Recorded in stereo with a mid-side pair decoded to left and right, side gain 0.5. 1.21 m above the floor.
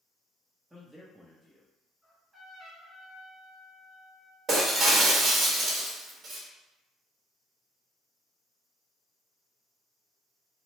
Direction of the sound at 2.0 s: Straight ahead.